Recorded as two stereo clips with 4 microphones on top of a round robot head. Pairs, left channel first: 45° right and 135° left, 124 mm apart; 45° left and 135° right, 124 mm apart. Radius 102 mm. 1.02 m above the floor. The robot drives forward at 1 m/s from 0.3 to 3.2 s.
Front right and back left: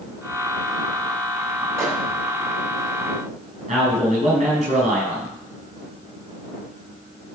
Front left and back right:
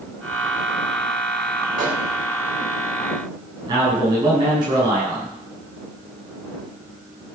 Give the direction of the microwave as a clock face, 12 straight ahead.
5 o'clock.